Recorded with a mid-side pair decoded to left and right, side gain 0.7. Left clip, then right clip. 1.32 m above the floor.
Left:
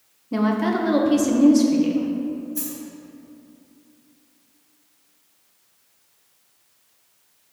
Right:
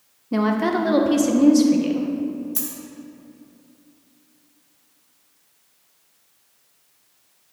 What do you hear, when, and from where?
0.3 s a woman speaking: 10° right, 1.0 m
2.5 s a dropped coin: 60° right, 2 m